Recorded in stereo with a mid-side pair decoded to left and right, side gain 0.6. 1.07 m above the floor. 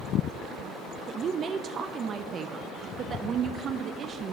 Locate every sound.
1.1 s a woman speaking: 40° right, 0.7 m